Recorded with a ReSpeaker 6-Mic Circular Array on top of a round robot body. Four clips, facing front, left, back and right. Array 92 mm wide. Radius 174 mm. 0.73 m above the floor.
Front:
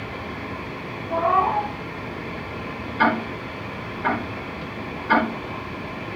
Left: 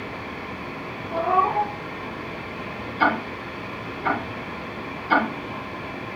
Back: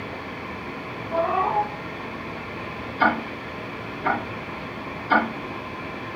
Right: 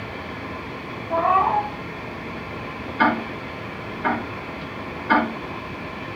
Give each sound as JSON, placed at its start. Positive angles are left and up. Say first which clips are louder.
{"t": 1.1, "sound": "a cat meowing", "louder": "right 2 dB, front 2 dB", "azimuth_deg": -75, "distance_m": 1.7}
{"t": 3.0, "sound": "ticking", "louder": "right 2 dB, front 1 dB", "azimuth_deg": -60, "distance_m": 5.5}